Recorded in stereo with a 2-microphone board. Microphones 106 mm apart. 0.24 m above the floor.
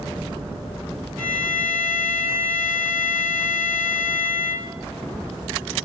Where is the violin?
15° left (ahead or behind), 2.5 m.